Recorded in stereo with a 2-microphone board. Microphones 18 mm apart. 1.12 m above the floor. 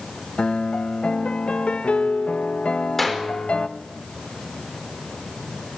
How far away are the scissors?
No scissors in this recording.